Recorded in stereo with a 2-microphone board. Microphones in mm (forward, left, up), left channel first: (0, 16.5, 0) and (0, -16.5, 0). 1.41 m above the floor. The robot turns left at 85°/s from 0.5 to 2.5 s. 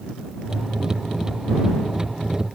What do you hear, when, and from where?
Only background noise.